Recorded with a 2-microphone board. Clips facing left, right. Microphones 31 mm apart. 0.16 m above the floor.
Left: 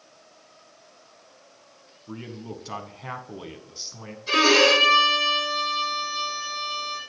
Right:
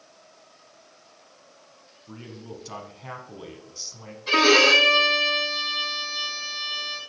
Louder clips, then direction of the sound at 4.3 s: Right 1 dB; 25° right (ahead or behind).